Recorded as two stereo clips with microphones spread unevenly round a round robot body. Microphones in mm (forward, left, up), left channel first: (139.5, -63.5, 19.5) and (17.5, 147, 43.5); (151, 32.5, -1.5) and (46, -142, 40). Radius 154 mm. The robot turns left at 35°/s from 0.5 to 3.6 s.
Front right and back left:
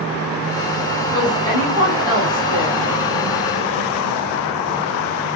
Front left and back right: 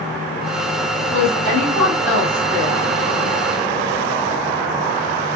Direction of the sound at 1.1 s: 145° right.